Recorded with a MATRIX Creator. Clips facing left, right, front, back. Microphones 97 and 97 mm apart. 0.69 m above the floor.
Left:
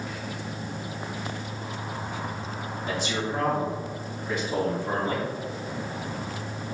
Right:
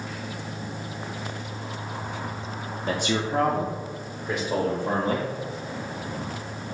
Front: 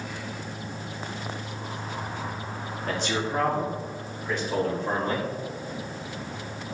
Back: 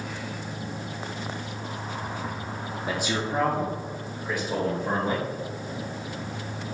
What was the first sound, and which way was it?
A man speaking, 100° right.